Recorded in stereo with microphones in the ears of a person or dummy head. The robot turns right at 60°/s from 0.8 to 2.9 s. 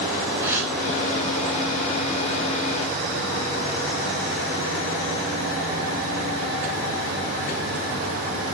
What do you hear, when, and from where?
0.4 s a gasp: 15° right (ahead or behind), 8 m